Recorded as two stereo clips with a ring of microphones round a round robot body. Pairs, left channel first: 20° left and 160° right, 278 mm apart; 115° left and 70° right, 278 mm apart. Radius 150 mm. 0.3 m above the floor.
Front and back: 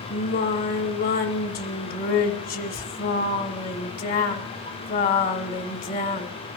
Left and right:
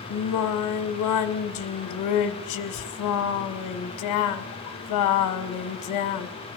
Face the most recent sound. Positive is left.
turn(degrees=85)